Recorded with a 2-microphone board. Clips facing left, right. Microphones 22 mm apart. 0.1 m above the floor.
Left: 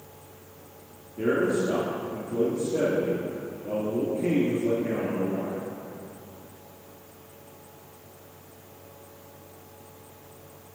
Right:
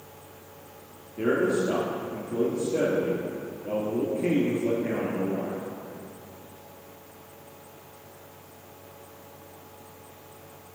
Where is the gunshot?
I don't hear a gunshot.